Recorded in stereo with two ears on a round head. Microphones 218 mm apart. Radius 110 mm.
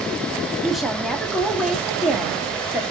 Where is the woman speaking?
Centre (ahead or behind), 2 m.